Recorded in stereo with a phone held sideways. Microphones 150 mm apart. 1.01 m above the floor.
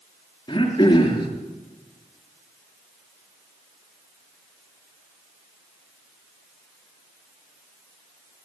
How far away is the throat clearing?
About 5 m.